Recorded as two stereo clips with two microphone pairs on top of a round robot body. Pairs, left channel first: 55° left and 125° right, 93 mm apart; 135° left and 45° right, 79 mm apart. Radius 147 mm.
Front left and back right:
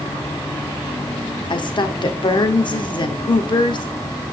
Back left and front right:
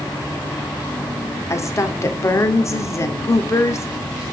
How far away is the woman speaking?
About 2 m.